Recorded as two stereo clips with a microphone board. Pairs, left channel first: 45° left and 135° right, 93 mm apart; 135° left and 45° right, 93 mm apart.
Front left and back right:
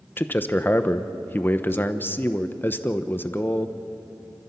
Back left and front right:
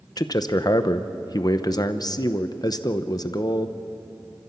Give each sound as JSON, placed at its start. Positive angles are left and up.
{"t": 0.2, "sound": "a man speaking", "azimuth_deg": 105, "distance_m": 0.9}